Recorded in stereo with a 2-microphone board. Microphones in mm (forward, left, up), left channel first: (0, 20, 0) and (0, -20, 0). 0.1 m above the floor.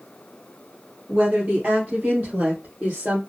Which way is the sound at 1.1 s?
40° right (ahead or behind).